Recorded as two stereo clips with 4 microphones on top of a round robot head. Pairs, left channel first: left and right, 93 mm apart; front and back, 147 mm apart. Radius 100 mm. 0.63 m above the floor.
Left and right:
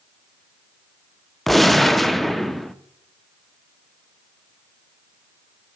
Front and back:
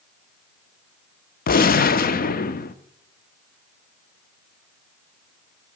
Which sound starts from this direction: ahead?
A gunshot, at 1.5 s.